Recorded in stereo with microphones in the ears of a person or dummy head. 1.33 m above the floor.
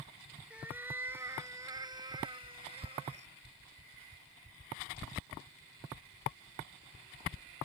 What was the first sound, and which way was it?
A cat meowing, 10° right (ahead or behind).